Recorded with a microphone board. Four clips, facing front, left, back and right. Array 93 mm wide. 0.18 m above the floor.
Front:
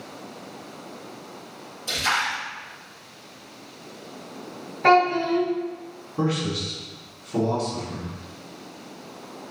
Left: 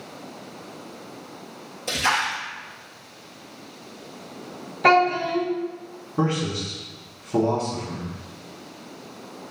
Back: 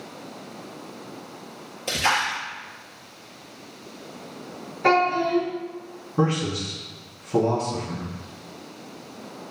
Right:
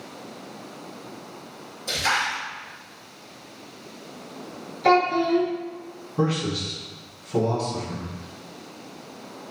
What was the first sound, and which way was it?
A splash, 155° left.